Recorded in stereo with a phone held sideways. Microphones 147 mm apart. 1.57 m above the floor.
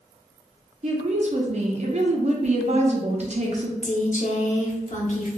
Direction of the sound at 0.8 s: 50° right (ahead or behind).